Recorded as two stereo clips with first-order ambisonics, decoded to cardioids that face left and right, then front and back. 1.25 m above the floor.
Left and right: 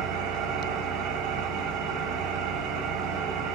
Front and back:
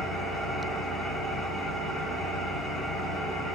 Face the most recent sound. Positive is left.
turn(degrees=-90)